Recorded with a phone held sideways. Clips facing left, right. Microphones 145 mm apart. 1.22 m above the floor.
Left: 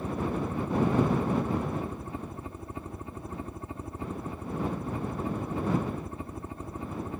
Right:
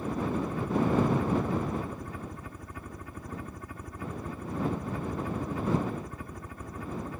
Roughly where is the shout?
No shout in this recording.